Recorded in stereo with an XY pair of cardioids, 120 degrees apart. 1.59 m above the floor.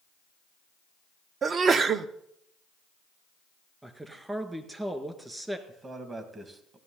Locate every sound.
1.4 s a sneeze: 40° right, 0.8 m
3.8 s a man speaking: 15° right, 1.8 m
5.7 s a man speaking: 30° right, 2 m